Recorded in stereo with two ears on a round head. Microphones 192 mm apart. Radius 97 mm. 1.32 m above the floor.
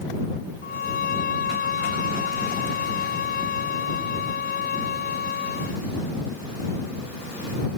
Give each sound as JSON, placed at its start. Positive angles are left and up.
{"t": 0.6, "sound": "a violin", "side_deg": 45}